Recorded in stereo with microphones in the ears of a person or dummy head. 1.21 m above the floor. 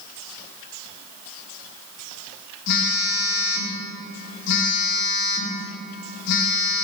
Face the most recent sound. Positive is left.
turn(degrees=65)  # may be behind; listen again after turning